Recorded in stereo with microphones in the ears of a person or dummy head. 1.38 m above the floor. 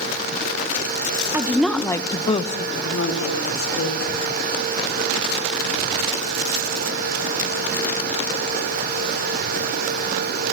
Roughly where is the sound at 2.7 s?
Left.